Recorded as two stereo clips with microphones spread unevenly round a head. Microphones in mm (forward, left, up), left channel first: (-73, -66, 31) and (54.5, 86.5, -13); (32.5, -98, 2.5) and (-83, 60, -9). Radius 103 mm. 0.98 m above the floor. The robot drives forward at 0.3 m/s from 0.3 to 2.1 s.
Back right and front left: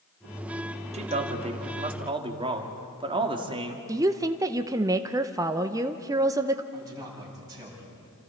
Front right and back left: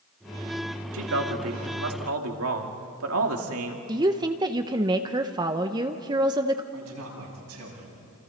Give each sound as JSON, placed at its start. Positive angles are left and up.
{"t": 0.9, "sound": "a man speaking", "azimuth_deg": 105, "distance_m": 2.0}
{"t": 3.9, "sound": "a woman speaking", "azimuth_deg": 80, "distance_m": 0.9}
{"t": 6.7, "sound": "a man speaking", "azimuth_deg": 125, "distance_m": 8.0}